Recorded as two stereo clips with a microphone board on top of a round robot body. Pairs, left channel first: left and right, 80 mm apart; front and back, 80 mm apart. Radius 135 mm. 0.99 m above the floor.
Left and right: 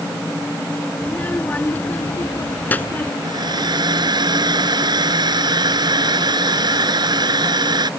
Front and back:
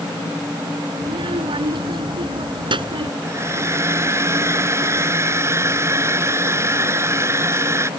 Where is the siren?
No siren in this recording.